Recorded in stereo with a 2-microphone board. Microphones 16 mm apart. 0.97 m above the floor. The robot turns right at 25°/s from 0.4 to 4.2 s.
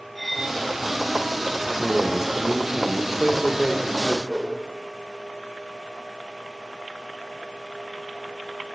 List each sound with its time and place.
0.1 s cutlery clinking: 15° left (ahead or behind), 3 m
1.8 s a man speaking: 65° right, 1.0 m; by 4.2 s 5° right, 1.0 m
4.3 s a whoosh: 10° right (ahead or behind), 1.6 m